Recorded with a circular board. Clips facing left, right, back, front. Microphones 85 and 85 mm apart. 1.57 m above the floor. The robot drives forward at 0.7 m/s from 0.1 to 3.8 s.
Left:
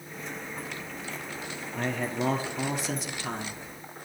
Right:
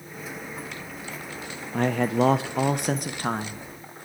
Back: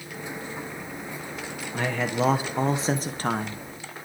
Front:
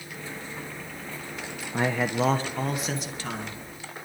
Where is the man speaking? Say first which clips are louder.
Right 8 dB, front 1 dB; 65° right, 0.9 m; by 3.6 s 145° right, 1.3 m.